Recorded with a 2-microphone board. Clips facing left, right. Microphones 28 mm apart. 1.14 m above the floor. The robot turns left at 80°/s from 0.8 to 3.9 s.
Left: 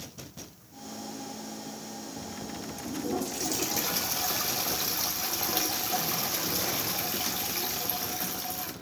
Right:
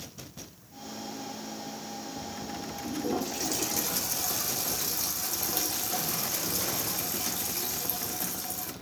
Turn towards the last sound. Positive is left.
turn(degrees=155)